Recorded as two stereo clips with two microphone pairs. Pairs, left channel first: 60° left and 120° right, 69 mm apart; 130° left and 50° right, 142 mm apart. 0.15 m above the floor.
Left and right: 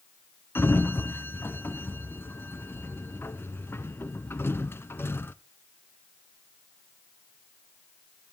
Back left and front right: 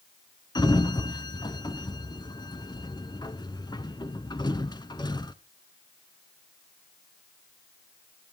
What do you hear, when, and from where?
0.6 s a sliding door: 90° left, 0.9 m